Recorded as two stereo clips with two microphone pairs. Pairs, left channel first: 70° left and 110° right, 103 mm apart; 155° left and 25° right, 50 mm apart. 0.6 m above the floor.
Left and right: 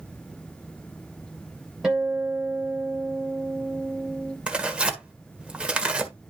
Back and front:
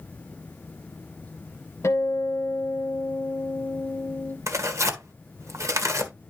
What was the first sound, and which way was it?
A guitar, 170° left.